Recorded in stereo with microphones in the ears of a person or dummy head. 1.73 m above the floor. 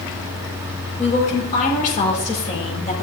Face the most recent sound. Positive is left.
turn(degrees=40)  # may be behind; listen again after turning